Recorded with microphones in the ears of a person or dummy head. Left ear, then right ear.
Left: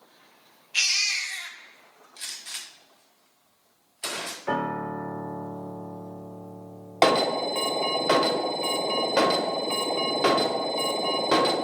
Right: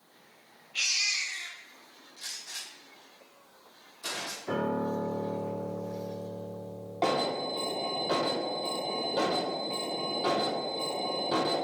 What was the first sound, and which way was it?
A baby crying, 55° left (ahead or behind).